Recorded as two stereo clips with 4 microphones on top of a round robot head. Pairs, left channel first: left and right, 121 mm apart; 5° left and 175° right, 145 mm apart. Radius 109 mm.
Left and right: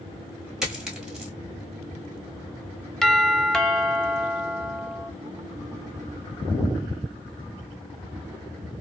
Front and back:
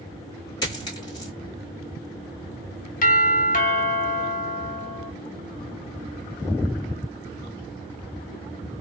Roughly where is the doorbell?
Ahead.